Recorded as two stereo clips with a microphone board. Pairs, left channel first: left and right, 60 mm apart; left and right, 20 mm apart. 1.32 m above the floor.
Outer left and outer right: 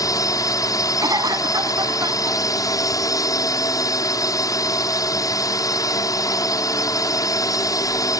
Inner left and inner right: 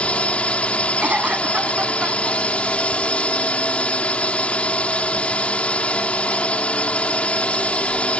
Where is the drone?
70° left (ahead or behind).